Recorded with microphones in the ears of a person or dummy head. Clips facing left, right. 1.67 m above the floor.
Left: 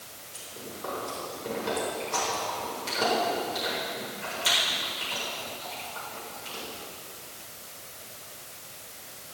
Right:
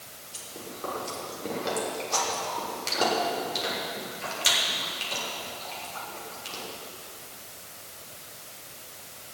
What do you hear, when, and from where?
0.3 s chewing: 75° right (ahead or behind), 6 m